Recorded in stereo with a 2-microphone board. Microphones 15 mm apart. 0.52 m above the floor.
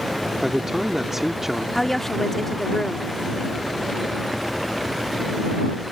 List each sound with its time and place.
0.4 s a man speaking: 20° right (ahead or behind)
1.8 s a woman speaking: 20° left (ahead or behind)